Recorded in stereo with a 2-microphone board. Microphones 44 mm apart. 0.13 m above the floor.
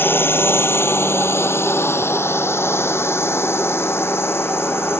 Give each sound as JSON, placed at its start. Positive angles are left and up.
{"t": 0.0, "sound": "a drone", "side_deg": 55}